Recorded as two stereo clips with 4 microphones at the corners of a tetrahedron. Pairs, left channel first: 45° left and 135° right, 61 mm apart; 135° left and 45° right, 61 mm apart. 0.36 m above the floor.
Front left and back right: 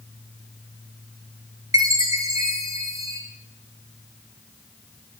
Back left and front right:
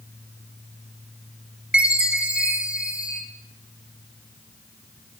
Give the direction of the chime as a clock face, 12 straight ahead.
4 o'clock.